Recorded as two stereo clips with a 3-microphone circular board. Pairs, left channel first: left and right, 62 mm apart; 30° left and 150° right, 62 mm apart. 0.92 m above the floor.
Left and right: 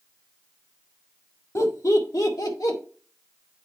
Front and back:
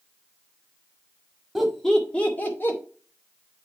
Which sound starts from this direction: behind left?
Laughter, at 1.6 s.